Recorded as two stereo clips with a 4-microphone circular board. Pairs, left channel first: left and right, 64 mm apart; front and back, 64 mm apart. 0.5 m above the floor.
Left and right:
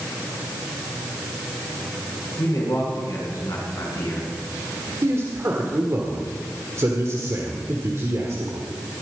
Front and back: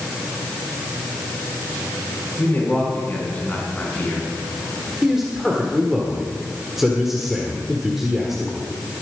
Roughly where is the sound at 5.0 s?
Right.